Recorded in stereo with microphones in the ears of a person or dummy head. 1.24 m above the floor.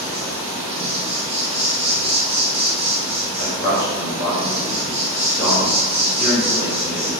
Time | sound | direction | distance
0.0 | an insect | 60° right (ahead or behind) | 1.1 m
3.4 | a man speaking | 10° left (ahead or behind) | 0.8 m